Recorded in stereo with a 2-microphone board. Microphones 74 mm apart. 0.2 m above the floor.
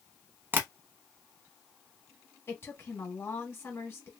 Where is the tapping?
30° right (ahead or behind), 0.7 m.